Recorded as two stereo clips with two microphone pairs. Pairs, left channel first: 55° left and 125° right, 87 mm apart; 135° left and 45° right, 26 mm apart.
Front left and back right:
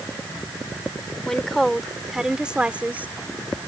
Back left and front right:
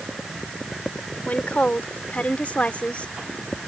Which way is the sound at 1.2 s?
140° left.